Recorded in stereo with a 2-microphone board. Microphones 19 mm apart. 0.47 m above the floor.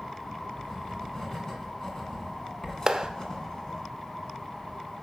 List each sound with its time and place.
0.6 s writing: 35° left (ahead or behind), 2.5 m
2.9 s a clap: 25° right (ahead or behind), 0.9 m